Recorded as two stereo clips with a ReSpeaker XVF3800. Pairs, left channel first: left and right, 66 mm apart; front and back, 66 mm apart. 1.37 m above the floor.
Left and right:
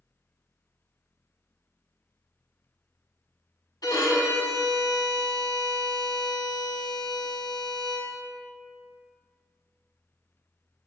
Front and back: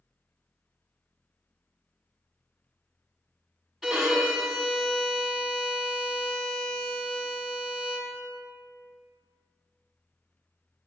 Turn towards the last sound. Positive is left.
turn(degrees=90)